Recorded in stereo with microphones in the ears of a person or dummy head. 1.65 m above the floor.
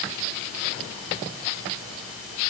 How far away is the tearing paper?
No tearing paper in this recording.